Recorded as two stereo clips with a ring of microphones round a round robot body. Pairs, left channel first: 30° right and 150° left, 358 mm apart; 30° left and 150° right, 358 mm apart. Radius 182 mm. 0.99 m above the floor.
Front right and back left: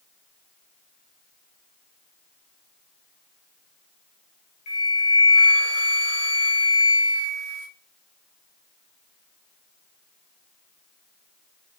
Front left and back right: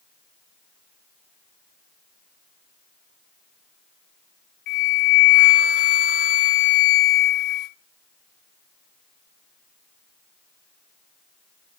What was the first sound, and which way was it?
A flute, 15° left.